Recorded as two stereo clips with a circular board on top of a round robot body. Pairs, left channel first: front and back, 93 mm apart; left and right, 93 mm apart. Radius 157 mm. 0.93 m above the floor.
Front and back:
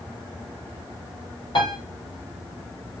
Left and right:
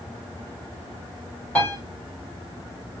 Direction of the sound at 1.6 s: 15° left.